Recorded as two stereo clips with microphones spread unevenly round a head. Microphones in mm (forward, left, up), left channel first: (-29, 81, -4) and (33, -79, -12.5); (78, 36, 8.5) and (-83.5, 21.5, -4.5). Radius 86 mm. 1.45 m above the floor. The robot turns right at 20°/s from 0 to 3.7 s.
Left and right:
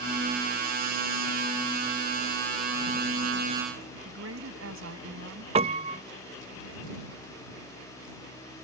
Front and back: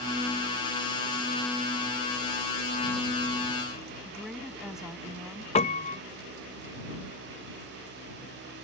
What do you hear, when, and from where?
4.0 s a woman speaking: 85° right
5.5 s a piano: 25° right